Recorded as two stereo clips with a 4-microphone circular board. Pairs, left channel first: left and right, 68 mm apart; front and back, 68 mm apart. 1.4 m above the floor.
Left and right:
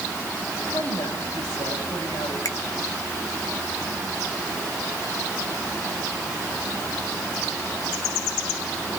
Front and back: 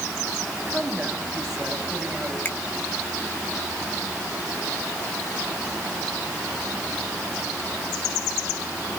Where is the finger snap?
60° left, 2 m.